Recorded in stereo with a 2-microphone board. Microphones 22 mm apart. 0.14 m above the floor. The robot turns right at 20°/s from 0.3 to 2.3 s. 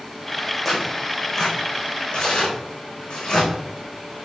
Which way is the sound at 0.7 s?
10° left (ahead or behind).